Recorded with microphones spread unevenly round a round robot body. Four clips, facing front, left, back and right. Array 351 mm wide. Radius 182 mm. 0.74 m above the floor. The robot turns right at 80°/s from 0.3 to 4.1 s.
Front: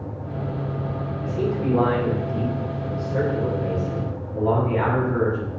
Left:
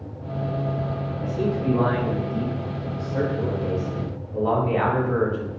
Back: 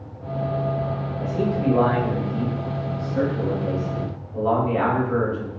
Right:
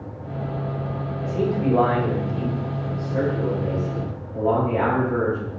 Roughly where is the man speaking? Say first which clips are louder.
Right 3 dB, back 2 dB; behind.